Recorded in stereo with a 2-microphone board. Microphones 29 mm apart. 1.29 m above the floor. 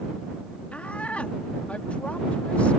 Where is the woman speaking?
50° left (ahead or behind).